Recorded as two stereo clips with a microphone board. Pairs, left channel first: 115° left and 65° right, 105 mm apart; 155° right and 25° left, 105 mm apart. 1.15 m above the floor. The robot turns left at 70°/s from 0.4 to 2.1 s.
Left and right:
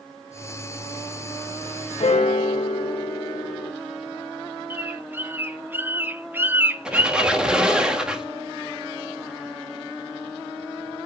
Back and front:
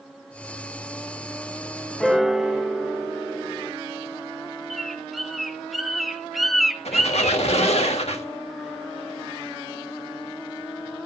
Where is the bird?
65° right, 0.6 m.